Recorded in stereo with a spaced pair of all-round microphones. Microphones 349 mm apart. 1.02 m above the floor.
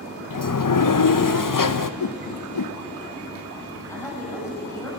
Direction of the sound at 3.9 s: 10° left (ahead or behind).